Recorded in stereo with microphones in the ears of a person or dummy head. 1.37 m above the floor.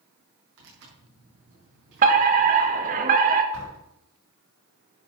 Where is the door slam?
65° right (ahead or behind), 5.5 m.